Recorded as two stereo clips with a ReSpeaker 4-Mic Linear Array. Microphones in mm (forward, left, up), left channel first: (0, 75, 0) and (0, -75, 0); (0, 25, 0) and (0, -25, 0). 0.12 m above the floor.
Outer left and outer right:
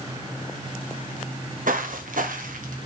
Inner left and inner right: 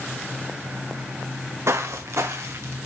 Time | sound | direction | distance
1.7 | footsteps | 65° right (ahead or behind) | 0.9 m